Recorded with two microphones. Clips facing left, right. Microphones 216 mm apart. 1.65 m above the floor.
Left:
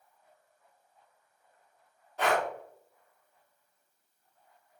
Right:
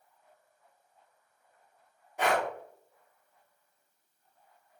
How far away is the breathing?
About 0.8 m.